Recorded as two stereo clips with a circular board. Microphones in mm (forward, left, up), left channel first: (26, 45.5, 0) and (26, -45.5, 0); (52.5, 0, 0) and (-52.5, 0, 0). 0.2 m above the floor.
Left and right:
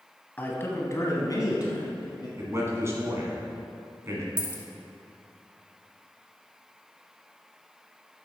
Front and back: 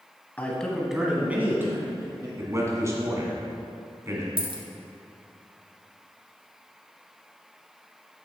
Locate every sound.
0.4 s a man speaking: 50° left, 1.0 m; by 2.3 s 120° left, 2.0 m
2.4 s a man speaking: 130° right, 1.6 m
4.4 s a dropped coin: 150° left, 1.0 m